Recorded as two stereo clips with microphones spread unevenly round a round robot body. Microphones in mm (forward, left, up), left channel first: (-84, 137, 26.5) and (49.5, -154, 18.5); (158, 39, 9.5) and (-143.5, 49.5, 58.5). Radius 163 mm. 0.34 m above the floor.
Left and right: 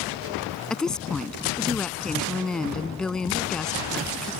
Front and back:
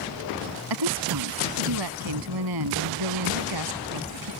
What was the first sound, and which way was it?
A woman speaking, 160° right.